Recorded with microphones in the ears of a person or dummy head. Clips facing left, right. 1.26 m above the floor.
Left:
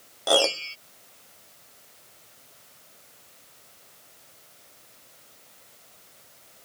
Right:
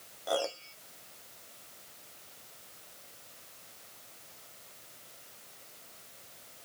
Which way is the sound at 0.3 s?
70° left (ahead or behind).